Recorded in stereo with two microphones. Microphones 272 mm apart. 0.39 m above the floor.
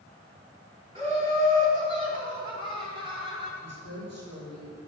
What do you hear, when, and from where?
0.9 s laughter: 20° right (ahead or behind), 3.5 m; by 3.5 s 15° right (ahead or behind), 2.5 m
3.6 s a woman speaking: 65° left (ahead or behind), 5.5 m